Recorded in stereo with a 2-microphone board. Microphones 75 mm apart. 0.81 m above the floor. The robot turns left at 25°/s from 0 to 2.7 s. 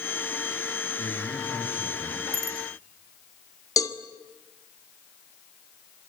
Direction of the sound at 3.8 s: 45° left (ahead or behind).